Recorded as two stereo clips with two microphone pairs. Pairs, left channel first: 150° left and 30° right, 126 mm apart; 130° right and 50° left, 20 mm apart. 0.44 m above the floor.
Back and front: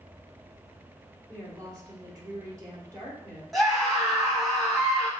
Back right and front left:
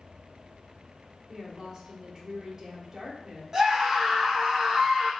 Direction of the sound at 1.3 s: 10° left.